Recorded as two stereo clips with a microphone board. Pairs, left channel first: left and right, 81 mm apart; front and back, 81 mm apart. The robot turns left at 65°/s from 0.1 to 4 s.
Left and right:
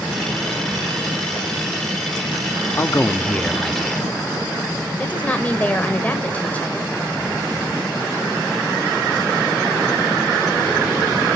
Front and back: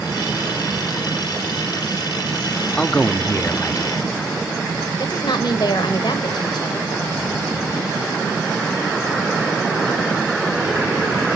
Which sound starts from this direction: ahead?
A woman speaking, at 5.0 s.